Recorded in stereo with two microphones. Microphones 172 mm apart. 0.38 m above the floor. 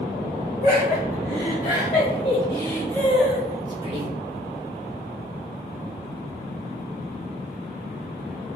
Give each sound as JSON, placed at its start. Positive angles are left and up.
{"t": 0.6, "sound": "laughter", "side_deg": 60, "distance_m": 1.8}